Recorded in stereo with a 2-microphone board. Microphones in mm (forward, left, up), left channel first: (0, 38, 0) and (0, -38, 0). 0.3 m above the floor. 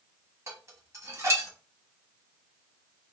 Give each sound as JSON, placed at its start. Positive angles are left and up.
{"t": 0.5, "sound": "dishes clattering", "side_deg": -40, "distance_m": 1.4}